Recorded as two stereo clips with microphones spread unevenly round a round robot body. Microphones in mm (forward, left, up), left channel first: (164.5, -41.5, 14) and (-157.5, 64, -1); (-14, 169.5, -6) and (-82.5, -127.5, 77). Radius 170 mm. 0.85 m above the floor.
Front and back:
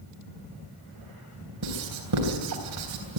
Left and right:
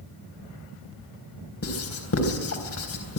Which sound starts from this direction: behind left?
Writing, at 1.6 s.